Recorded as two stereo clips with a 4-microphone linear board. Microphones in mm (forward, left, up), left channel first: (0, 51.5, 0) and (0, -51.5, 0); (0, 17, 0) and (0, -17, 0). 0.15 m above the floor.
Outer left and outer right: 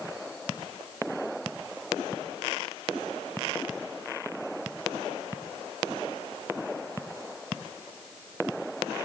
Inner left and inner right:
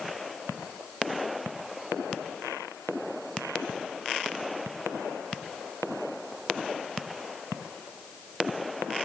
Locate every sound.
Only background noise.